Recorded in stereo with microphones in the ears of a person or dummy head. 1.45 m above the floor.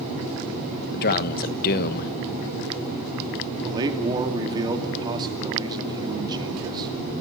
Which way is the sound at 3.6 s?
20° right (ahead or behind).